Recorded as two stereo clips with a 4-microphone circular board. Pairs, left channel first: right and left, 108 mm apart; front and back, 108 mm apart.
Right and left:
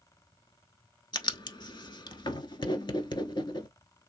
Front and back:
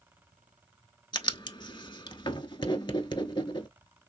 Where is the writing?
45° right, 0.7 m.